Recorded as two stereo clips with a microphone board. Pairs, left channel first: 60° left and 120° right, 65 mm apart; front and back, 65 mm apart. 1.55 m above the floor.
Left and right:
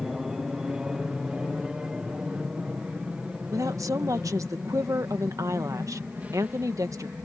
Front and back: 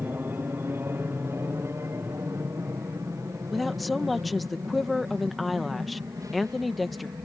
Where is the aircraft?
165° left; by 7.2 s 175° left.